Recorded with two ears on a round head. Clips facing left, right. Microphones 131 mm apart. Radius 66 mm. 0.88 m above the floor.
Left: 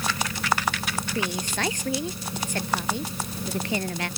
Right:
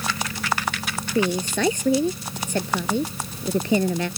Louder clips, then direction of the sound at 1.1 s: Right 9 dB; 85° right.